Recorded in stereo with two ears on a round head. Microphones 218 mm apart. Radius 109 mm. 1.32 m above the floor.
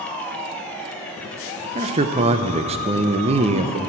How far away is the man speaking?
About 0.6 m.